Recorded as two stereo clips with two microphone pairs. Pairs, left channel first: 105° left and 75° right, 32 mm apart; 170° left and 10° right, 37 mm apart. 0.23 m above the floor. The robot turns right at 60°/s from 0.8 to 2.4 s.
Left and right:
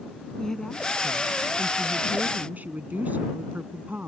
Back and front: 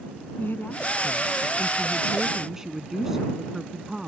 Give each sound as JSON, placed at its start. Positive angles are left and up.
{"t": 0.4, "sound": "a woman speaking", "azimuth_deg": 180}